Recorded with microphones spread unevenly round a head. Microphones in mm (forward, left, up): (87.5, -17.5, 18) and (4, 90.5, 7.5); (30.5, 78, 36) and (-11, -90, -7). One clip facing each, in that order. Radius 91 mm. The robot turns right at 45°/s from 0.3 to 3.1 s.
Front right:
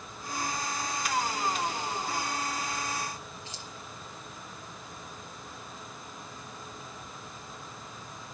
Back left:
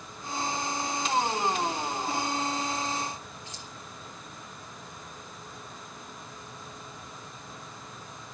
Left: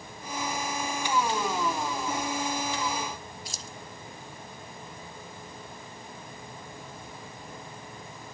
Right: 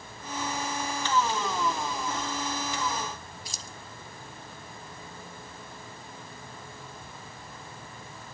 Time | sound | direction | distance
3.5 | keys jangling | 120° right | 0.7 m